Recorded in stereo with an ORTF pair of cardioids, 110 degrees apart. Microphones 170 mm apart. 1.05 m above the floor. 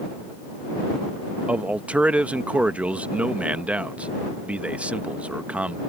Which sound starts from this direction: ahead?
A man speaking, at 1.5 s.